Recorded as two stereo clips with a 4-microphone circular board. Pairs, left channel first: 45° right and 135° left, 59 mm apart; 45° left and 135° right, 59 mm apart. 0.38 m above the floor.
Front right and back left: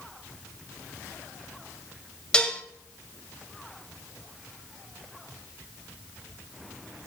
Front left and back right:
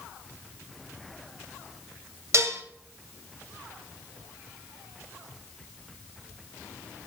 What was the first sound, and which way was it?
Dishes clattering, 115° right.